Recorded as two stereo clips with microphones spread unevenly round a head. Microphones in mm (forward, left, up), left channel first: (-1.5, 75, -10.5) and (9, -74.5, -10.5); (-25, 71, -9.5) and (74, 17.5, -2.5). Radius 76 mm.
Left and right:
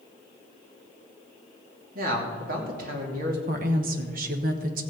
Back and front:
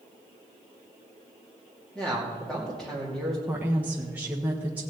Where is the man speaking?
125° right, 2.5 m.